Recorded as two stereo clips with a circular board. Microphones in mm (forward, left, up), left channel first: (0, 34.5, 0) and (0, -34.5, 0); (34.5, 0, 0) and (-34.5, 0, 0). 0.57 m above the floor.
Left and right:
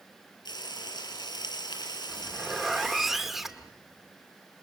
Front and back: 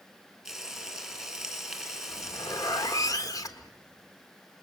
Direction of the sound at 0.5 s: 95° left.